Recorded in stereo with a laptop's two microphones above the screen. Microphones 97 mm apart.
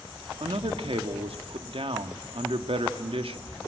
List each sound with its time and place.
0.4 s a man speaking: 70° right (ahead or behind), 1.5 m